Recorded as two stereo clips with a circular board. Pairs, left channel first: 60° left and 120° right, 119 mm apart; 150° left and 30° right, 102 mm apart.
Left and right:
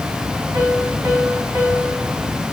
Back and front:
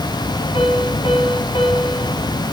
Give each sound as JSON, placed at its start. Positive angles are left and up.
{"t": 0.5, "sound": "a piano", "azimuth_deg": 180, "distance_m": 3.0}